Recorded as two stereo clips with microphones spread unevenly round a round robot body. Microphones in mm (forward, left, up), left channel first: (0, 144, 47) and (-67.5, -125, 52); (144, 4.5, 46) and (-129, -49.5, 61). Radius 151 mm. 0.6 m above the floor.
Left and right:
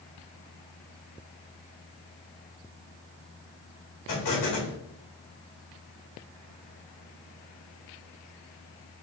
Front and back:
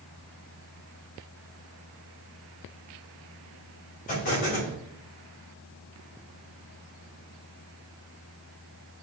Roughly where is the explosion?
Left.